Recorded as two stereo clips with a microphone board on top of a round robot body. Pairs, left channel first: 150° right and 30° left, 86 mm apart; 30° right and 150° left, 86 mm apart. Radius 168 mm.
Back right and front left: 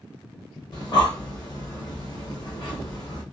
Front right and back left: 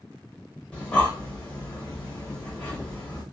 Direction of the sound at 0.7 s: 110° right.